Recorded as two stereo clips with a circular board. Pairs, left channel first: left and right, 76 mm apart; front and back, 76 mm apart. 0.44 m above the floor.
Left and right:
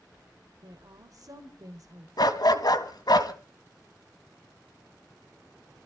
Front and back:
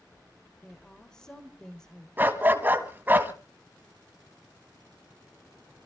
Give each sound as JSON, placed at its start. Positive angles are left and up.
{"t": 0.6, "sound": "a woman speaking", "azimuth_deg": -80, "distance_m": 1.6}
{"t": 2.2, "sound": "a dog barking", "azimuth_deg": 115, "distance_m": 1.5}